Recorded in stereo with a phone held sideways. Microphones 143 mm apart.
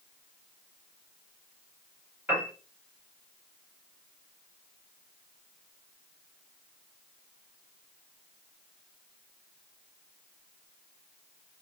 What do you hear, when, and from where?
2.3 s a piano: 10° right (ahead or behind), 1.5 m